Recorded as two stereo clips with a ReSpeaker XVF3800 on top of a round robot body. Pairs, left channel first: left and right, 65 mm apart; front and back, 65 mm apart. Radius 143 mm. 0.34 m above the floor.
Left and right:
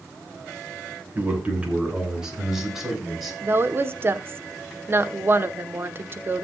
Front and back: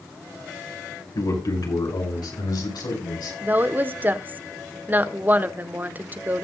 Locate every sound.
1.1 s a man speaking: 25° right, 6 m; by 3.3 s straight ahead, 6.5 m
3.4 s a woman speaking: 125° right, 1.1 m